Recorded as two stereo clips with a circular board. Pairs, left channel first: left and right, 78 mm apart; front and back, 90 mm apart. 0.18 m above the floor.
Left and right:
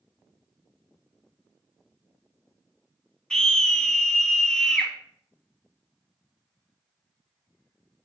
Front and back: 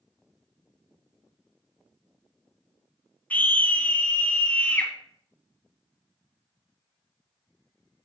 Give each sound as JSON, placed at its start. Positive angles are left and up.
{"t": 3.3, "sound": "a scream", "azimuth_deg": 25, "distance_m": 1.2}